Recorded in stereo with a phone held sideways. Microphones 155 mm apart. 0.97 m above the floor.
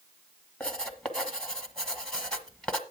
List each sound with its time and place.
0.6 s writing: 5° left (ahead or behind), 1.2 m